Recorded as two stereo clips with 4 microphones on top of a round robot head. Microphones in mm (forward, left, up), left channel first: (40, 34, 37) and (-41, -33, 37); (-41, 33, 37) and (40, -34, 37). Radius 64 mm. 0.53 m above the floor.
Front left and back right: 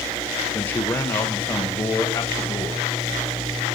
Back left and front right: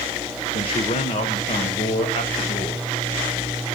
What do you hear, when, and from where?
0.5 s a man speaking: 110° left, 1.7 m; by 2.8 s 105° left, 3 m